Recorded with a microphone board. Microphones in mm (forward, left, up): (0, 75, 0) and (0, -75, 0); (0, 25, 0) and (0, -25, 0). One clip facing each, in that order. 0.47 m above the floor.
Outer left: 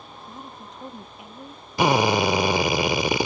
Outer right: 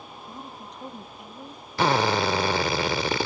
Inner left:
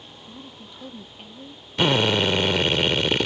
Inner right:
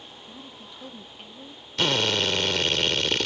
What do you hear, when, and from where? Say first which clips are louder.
0.3 s a woman speaking: even, inner left 3 dB; centre (ahead or behind); by 1.7 s 5° left (ahead or behind)
1.8 s a drill: outer left 3 dB, inner left 4 dB; 15° left (ahead or behind)